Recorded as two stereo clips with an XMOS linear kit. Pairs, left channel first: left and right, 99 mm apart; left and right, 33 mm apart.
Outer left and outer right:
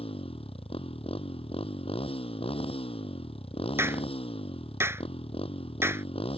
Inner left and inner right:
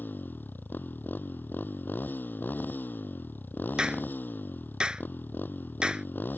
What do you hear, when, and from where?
0.0 s a motorcycle: 80° left
3.8 s a clap: 25° right (ahead or behind)